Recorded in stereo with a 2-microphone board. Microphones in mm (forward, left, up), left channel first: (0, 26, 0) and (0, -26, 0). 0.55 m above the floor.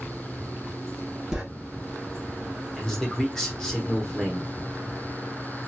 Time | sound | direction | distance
1.3 | writing | centre (ahead or behind) | 1.2 m
2.8 | a man speaking | 15° left (ahead or behind) | 1.1 m